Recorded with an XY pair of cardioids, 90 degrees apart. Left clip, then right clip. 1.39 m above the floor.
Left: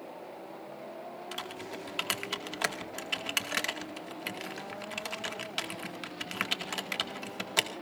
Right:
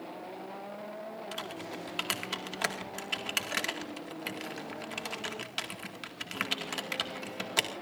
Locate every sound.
1.3 s typing on a keyboard: 10° left, 2.0 m